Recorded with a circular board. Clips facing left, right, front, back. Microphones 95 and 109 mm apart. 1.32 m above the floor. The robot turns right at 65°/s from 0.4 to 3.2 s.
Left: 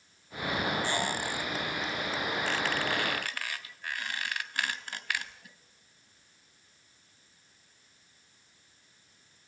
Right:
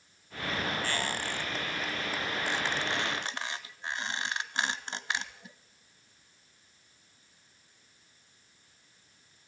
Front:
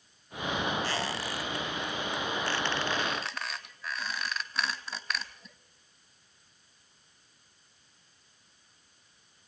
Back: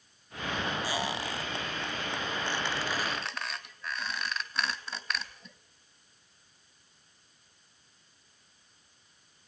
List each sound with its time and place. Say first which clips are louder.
0.8 s a squeak: left 2 dB, even; 120° left, 1.2 m; by 5.5 s 90° right, 1.2 m